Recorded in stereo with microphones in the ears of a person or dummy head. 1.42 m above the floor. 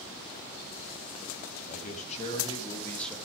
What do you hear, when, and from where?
1.7 s a man speaking: 50° left (ahead or behind), 2.5 m; by 3.2 s centre (ahead or behind), 2.0 m